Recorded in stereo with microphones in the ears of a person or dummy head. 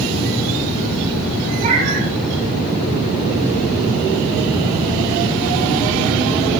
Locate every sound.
1.6 s a cat meowing: 50° right (ahead or behind), 3 m